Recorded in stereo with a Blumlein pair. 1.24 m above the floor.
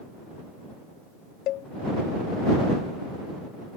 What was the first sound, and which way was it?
A cowbell, 35° left.